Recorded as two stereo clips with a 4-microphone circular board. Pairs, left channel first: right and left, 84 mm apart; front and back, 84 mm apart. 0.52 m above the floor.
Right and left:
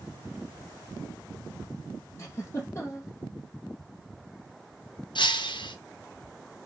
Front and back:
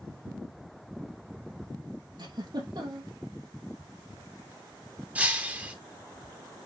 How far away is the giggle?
About 6 m.